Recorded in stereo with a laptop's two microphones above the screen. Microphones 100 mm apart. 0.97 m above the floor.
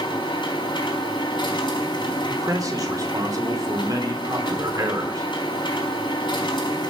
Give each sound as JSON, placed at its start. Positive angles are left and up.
{"t": 0.0, "sound": "a machine running", "side_deg": 55, "distance_m": 4.0}
{"t": 2.3, "sound": "a man speaking", "side_deg": -35, "distance_m": 3.0}